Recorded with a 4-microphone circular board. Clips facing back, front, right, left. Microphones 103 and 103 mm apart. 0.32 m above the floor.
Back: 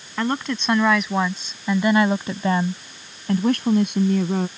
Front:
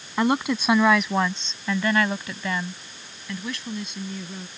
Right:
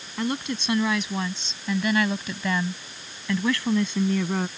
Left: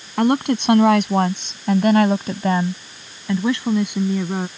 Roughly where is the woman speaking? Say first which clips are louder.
Front 2 dB, left 11 dB; left.